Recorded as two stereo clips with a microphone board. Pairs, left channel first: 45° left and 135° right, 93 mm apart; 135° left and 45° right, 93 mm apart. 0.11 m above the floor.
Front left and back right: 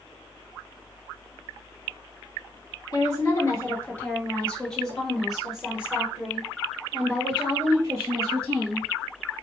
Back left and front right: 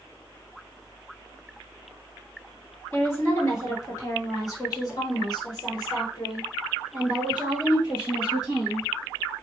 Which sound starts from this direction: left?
A woman speaking, at 2.9 s.